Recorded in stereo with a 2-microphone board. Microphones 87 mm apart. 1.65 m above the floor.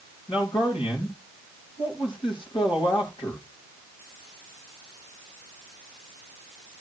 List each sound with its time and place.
0.3 s a man speaking: 85° left, 4.5 m